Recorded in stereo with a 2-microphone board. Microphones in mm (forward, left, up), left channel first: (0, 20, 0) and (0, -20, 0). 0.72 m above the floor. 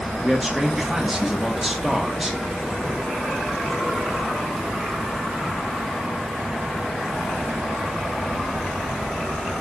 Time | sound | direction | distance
0.2 | a man speaking | 5° right (ahead or behind) | 1.1 m